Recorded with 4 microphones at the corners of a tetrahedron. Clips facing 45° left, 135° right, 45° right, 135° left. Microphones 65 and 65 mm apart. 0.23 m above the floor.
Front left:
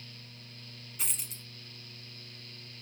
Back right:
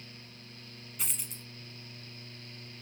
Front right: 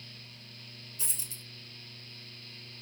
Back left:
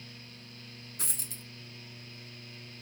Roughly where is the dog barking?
No dog barking in this recording.